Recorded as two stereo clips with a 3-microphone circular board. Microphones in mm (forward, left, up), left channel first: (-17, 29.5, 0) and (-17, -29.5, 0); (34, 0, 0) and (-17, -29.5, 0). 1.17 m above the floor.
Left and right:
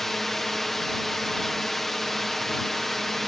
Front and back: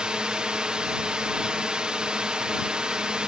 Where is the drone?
170° left.